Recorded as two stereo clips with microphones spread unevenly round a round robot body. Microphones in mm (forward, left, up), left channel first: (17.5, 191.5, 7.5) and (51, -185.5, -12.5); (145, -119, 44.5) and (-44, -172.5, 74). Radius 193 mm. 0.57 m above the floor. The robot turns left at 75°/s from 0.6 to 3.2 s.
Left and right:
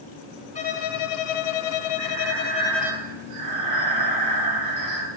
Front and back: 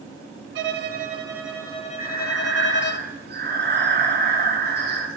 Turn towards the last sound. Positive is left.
turn(degrees=-130)